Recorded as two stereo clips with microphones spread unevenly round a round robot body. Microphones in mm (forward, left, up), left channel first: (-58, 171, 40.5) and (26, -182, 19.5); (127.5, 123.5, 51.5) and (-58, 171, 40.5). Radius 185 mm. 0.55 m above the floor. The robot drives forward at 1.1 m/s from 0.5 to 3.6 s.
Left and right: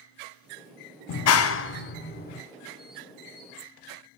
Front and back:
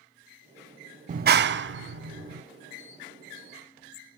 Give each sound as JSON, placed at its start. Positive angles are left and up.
{"t": 1.1, "sound": "a clap", "azimuth_deg": 130, "distance_m": 0.5}